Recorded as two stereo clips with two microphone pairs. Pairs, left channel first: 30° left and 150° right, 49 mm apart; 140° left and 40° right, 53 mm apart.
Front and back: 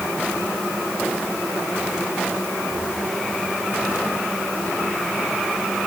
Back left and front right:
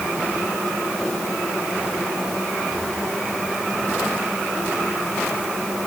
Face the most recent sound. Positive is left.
No sound to turn to.